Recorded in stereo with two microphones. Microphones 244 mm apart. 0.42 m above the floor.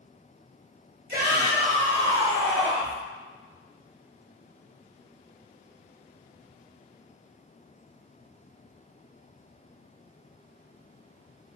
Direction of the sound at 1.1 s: 40° right (ahead or behind).